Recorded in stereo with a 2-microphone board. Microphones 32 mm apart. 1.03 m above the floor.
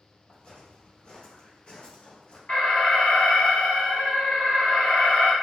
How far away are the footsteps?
About 1.7 m.